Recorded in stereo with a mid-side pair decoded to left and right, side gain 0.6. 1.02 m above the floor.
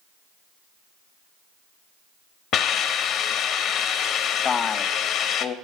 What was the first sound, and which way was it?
A hiss, 60° left.